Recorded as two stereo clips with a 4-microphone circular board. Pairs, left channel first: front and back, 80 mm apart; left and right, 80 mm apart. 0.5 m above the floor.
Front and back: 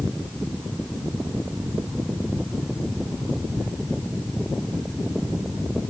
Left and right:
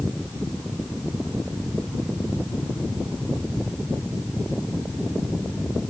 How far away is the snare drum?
No snare drum in this recording.